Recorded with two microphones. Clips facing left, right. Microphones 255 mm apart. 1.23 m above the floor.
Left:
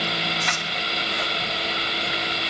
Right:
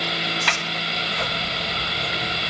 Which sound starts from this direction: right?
A sliding door, at 0.5 s.